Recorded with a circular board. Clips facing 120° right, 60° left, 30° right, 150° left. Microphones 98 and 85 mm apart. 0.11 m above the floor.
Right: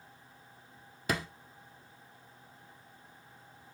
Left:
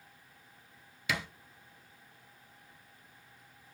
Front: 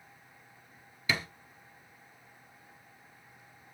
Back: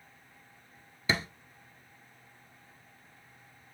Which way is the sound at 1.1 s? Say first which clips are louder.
Right 2 dB, back 2 dB; 155° right.